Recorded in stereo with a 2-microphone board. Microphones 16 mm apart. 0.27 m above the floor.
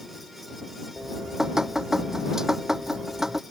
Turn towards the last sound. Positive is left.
turn(degrees=-35)  # may be behind; listen again after turning